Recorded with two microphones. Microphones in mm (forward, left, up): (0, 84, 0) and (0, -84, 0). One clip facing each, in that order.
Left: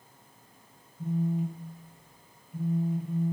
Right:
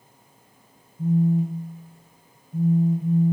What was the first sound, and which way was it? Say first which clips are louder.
A phone buzzing: right 8 dB; 45° right (ahead or behind).